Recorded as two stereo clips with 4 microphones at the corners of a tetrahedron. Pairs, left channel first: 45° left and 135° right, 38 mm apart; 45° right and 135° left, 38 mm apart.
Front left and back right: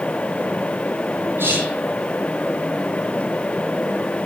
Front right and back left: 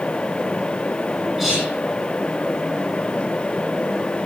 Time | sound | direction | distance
1.4 | whispering | 150° right | 5.5 m